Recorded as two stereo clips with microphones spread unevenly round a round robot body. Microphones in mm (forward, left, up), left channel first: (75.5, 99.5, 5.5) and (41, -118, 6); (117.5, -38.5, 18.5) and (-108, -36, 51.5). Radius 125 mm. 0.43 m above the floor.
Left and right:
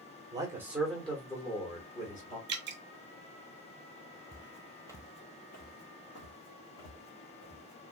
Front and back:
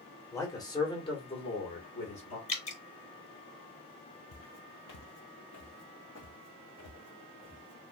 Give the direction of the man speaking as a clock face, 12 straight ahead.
2 o'clock.